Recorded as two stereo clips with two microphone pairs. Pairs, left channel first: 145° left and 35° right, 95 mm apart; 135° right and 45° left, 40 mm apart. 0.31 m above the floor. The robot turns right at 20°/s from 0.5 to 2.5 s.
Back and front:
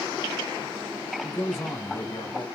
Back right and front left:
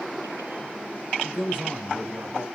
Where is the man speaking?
95° left, 1.7 m; by 2.5 s 120° left, 1.7 m.